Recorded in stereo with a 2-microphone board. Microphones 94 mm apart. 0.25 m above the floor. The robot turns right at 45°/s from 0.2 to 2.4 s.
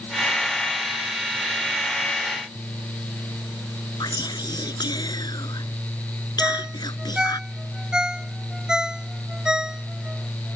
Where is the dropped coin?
No dropped coin in this recording.